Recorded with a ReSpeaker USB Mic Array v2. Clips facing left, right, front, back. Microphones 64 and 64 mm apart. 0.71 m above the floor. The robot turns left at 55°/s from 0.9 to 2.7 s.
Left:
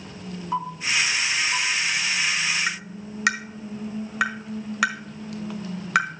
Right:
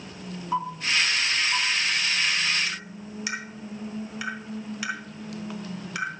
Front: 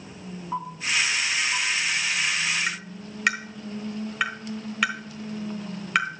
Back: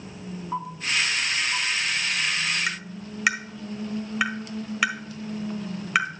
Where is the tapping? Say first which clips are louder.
Left 5 dB, back 1 dB; 95° left, 1.5 m.